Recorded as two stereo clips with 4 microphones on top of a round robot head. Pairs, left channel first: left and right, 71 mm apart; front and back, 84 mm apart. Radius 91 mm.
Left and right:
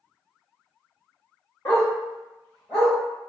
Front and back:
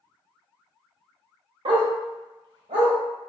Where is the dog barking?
155° left, 0.6 m; by 2.9 s 175° left, 1.2 m.